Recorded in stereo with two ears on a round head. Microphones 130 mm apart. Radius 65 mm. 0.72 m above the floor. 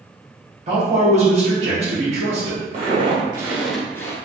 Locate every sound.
0.7 s a man speaking: 50° right (ahead or behind), 1.3 m
2.7 s footsteps: 45° right (ahead or behind), 1.1 m; by 4.2 s 25° left (ahead or behind), 0.8 m